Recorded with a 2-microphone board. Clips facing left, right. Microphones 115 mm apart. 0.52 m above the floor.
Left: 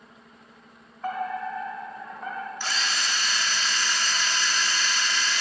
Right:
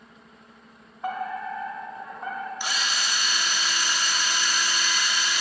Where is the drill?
15° right (ahead or behind), 0.6 m.